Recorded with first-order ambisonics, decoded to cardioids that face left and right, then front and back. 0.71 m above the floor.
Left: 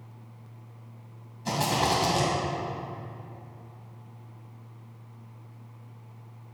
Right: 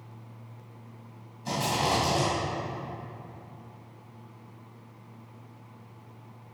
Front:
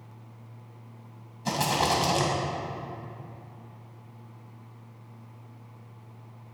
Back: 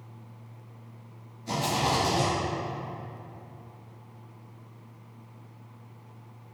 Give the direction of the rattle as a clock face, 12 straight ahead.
12 o'clock.